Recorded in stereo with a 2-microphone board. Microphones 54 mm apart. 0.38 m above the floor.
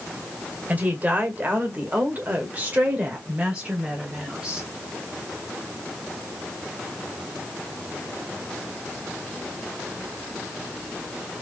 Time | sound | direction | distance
0.7 | a woman speaking | 30° right (ahead or behind) | 1.8 m